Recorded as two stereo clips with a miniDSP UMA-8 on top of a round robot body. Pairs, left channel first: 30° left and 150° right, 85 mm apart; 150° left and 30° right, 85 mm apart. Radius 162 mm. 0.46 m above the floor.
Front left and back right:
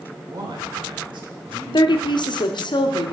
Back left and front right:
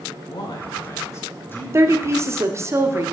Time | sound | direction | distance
0.3 | a man speaking | 175° left | 2.5 m
1.7 | a woman speaking | 25° left | 1.3 m